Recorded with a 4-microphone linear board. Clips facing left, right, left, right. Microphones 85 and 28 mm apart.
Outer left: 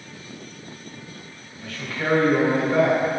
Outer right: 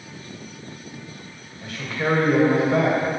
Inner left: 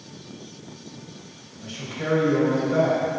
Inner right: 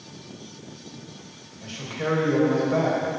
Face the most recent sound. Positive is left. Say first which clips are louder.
# outer right 2 dB, inner right 1 dB
turn(degrees=-25)  # may be behind; listen again after turning